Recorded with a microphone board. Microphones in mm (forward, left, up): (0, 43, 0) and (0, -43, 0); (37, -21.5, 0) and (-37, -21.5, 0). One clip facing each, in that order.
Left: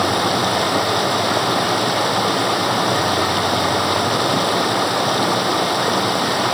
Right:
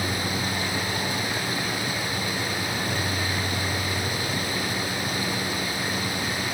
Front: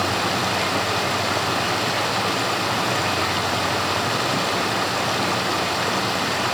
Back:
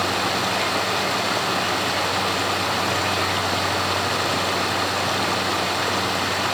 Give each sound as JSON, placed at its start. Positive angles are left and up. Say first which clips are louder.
{"t": 0.0, "sound": "running water", "louder": "left 11 dB, even", "azimuth_deg": 90}